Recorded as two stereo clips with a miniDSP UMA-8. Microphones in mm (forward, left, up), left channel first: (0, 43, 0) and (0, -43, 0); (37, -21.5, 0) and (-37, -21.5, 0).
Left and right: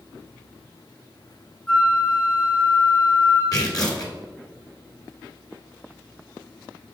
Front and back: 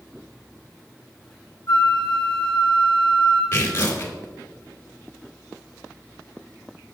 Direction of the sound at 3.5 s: 55° left.